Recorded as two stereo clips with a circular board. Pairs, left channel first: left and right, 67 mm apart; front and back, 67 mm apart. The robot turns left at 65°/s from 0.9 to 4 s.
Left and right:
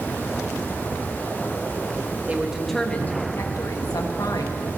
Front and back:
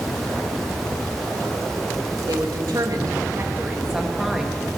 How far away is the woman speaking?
About 1.8 m.